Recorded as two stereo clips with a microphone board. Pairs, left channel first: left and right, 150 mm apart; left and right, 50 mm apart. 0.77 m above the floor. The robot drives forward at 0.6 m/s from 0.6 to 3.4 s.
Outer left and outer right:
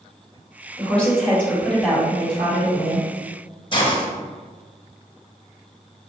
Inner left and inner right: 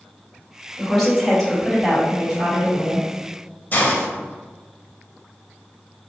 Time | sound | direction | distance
0.8 | a woman speaking | 10° left (ahead or behind) | 2.0 m
3.7 | a hiss | 35° left (ahead or behind) | 0.9 m